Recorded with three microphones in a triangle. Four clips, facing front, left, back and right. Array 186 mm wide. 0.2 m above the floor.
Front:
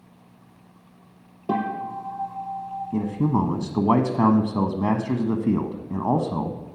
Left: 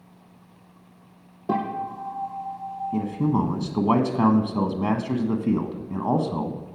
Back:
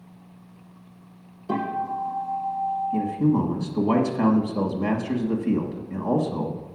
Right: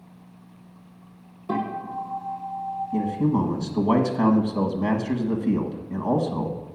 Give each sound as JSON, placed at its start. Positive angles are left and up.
{"t": 1.5, "sound": "a guitar", "azimuth_deg": 45, "distance_m": 3.5}
{"t": 2.9, "sound": "a man speaking", "azimuth_deg": 25, "distance_m": 1.3}